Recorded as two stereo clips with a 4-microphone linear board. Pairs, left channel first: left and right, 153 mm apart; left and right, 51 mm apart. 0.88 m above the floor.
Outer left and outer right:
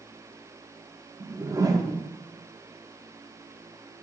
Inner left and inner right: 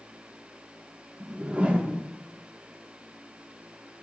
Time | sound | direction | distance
1.2 | a whoosh | 20° right (ahead or behind) | 1.0 m